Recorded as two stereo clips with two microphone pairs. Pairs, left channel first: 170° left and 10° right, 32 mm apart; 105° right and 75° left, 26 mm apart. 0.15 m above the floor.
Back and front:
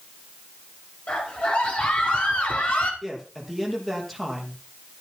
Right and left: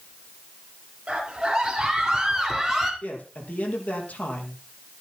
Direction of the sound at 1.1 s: 145° left.